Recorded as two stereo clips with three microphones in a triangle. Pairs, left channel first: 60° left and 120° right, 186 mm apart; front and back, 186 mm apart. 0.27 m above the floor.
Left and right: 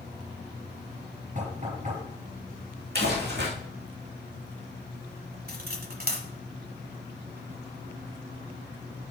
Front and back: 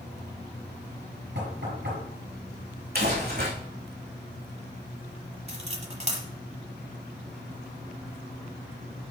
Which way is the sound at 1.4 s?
170° right.